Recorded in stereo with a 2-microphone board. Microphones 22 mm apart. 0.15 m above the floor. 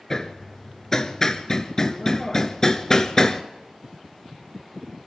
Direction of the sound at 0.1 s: 25° left (ahead or behind).